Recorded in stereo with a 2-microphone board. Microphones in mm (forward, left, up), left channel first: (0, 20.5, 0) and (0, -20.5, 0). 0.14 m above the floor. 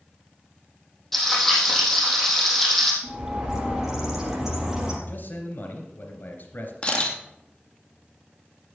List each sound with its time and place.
1.1 s frying: 5° left (ahead or behind), 4.5 m
3.0 s a bird: 15° right (ahead or behind), 4 m
5.1 s a man speaking: 55° left (ahead or behind), 2.5 m
6.8 s a camera shutter: 30° left (ahead or behind), 2 m